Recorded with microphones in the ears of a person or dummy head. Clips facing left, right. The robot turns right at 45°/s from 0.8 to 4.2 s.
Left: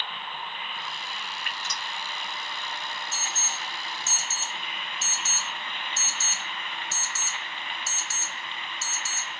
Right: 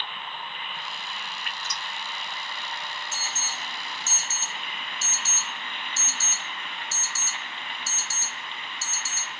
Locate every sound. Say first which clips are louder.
1.4 s dripping: even; 70° left (ahead or behind), 1.5 m; by 1.8 s 50° left (ahead or behind), 1.5 m
3.1 s an alarm: even; 20° right (ahead or behind), 1.3 m; by 9.4 s 65° right (ahead or behind), 1.3 m